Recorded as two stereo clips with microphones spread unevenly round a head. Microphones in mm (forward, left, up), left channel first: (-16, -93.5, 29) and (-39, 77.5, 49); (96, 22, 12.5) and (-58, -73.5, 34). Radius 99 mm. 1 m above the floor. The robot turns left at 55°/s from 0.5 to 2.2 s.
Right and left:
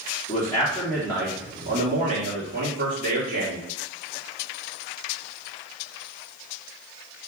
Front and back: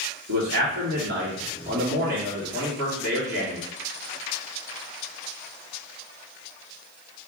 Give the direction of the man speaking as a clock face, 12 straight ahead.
5 o'clock.